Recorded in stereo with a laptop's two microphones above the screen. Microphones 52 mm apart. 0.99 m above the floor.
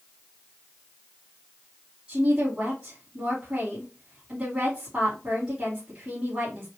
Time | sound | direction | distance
2.1 | a woman speaking | 25° right (ahead or behind) | 2 m